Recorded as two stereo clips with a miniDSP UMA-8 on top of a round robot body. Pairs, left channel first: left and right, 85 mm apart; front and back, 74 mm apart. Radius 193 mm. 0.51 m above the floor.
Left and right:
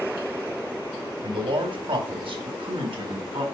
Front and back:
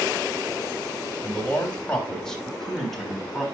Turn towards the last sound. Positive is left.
turn(degrees=-90)